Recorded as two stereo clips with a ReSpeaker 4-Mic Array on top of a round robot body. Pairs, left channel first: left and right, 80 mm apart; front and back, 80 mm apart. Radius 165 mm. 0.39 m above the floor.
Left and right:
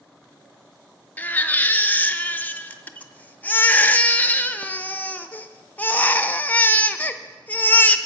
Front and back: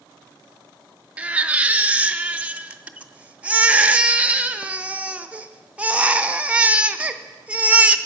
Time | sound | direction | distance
1.2 | a baby crying | 130° left | 0.7 m